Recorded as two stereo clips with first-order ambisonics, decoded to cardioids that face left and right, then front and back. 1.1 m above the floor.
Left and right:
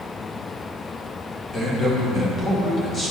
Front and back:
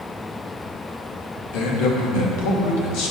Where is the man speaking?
15° left, 1.4 m.